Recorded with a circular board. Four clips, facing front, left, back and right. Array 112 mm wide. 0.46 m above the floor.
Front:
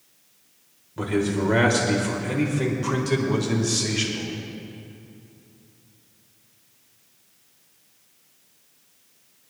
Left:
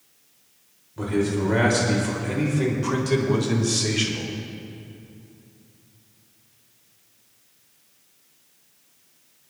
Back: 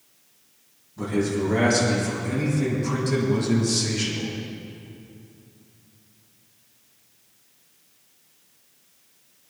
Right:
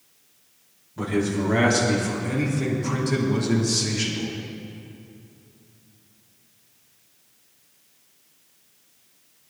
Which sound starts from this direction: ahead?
A man speaking, at 1.0 s.